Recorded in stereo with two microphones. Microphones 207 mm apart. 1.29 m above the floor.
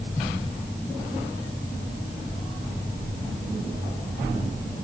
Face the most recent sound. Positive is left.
No sound to turn to.